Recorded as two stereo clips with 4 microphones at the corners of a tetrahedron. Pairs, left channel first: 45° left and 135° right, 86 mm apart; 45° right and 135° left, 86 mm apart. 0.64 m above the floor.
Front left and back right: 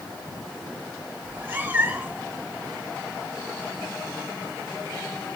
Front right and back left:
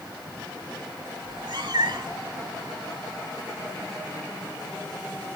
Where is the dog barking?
No dog barking in this recording.